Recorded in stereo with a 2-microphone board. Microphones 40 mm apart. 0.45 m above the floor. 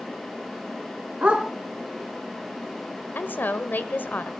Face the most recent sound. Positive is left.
turn(degrees=50)  # may be behind; listen again after turning